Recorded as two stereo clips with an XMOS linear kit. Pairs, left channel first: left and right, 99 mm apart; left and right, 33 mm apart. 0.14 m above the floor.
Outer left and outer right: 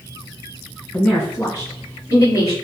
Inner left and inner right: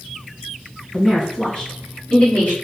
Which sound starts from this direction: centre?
A woman speaking, at 0.9 s.